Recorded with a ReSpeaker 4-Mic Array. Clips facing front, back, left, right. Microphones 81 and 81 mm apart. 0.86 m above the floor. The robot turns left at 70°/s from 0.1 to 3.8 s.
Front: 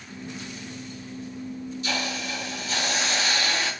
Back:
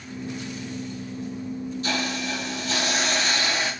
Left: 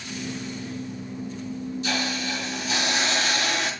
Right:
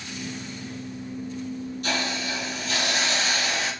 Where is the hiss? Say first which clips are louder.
Back 2 dB, even; 130° right, 6 m; by 3.7 s 100° left, 6 m.